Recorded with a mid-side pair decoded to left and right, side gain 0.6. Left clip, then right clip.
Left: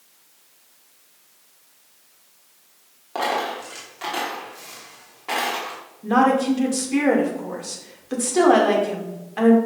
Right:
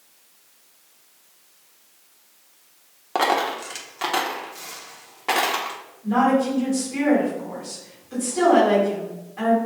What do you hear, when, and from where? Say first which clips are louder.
3.1 s a dropped coin: right 3 dB; 40° right, 1.4 m
6.0 s a woman speaking: left 2 dB; 60° left, 2 m